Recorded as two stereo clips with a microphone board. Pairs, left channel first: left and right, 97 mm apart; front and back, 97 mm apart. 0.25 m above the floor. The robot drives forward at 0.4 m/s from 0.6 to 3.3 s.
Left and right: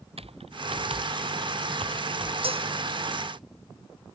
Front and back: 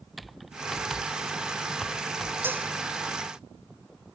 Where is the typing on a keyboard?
90° right.